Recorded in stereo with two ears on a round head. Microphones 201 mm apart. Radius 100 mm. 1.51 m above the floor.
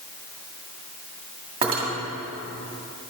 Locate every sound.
1.6 s cutlery clinking: 25° right (ahead or behind), 1.9 m